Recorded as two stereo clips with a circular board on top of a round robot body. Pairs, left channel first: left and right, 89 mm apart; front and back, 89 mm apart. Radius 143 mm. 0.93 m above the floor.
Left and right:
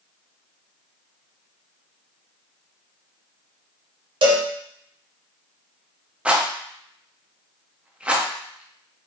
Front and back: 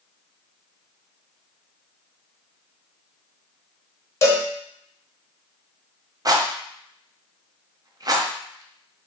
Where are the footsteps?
No footsteps in this recording.